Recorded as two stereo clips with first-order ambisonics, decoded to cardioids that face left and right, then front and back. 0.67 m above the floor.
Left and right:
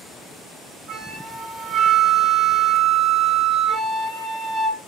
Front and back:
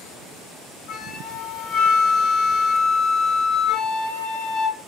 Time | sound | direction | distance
0.9 | a flute | 25° right | 2.5 m